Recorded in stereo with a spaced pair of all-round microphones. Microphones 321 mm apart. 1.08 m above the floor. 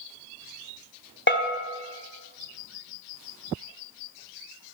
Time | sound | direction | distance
1.3 | a bell | 35° left (ahead or behind) | 1.7 m